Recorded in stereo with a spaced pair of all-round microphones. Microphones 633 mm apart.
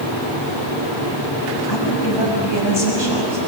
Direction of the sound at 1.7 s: 40° left (ahead or behind).